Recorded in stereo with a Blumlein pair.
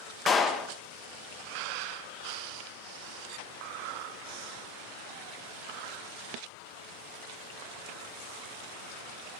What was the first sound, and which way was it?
A clap, 20° left.